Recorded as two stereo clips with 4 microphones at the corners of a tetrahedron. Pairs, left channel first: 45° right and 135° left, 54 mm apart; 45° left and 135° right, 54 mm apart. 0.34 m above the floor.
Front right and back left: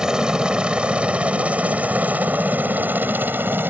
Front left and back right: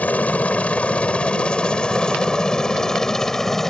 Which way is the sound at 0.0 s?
70° left.